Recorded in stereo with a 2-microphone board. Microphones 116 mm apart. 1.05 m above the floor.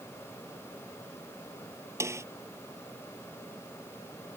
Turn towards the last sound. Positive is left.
turn(degrees=-25)  # may be behind; listen again after turning